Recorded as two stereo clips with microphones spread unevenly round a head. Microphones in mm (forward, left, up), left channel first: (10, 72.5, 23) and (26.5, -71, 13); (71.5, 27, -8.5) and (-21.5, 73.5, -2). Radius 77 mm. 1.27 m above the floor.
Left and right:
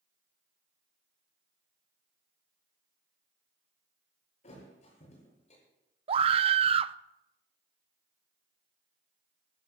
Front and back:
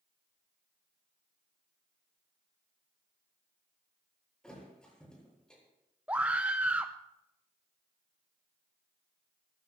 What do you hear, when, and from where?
4.4 s a thud: 55° left, 9 m
6.1 s a scream: 125° right, 0.5 m